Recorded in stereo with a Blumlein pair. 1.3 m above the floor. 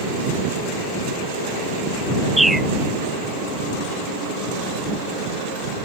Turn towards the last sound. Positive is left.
turn(degrees=0)